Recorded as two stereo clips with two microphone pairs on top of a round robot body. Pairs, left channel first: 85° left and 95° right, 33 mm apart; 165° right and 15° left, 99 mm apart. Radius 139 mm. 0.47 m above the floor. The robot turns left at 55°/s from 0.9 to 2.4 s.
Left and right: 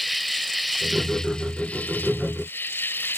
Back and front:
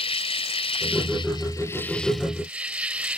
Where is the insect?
175° left; by 3.2 s 95° left.